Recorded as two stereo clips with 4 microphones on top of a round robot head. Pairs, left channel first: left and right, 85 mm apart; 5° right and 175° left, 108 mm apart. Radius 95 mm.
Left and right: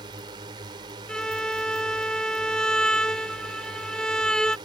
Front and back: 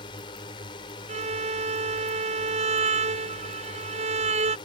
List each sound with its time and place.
0.0 s a drone: 55° right
1.1 s a violin: 170° left